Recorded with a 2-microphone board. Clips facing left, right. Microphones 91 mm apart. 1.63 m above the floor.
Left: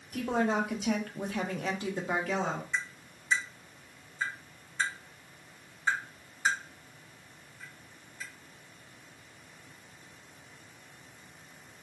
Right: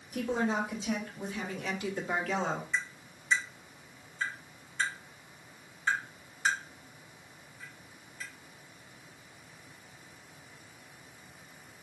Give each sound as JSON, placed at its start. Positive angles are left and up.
{"t": 0.1, "sound": "a woman speaking", "side_deg": 65, "distance_m": 1.3}
{"t": 2.7, "sound": "tapping", "side_deg": 15, "distance_m": 2.0}